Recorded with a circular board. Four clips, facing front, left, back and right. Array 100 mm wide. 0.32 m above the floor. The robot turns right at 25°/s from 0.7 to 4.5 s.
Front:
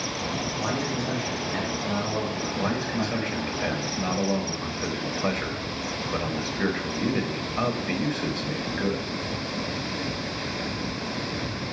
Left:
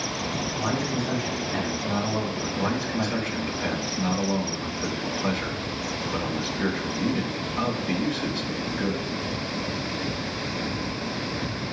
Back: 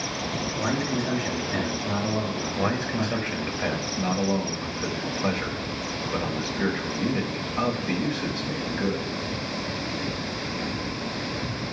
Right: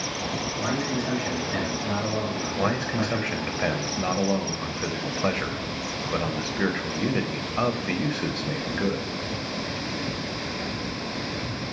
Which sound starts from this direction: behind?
A man speaking, at 0.6 s.